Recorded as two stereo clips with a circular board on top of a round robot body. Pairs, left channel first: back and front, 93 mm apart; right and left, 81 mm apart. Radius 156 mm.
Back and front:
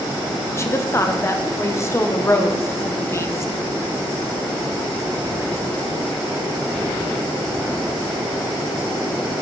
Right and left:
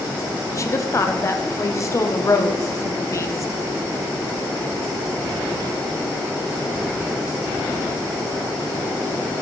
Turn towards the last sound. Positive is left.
turn(degrees=-130)